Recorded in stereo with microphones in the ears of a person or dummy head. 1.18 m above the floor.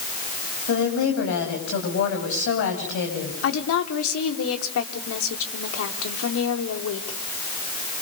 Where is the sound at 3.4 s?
80° left, 3.5 m.